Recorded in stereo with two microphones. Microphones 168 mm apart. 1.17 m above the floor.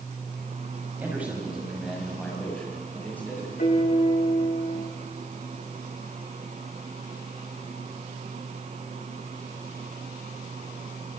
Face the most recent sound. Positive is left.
turn(degrees=50)  # may be behind; listen again after turning